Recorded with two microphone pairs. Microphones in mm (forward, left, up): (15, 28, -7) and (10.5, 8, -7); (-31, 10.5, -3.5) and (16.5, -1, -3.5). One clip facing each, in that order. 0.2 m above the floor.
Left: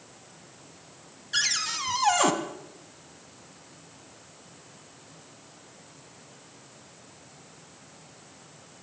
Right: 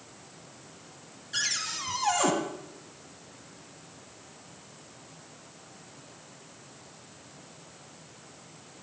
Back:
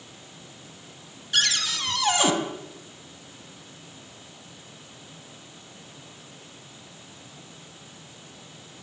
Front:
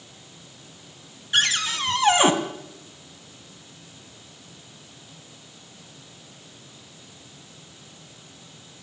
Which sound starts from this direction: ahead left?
A cupboard door, at 1.3 s.